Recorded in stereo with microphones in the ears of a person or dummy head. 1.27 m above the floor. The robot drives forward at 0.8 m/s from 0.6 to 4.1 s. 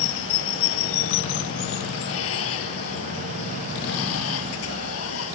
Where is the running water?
80° left; by 5.4 s 85° left.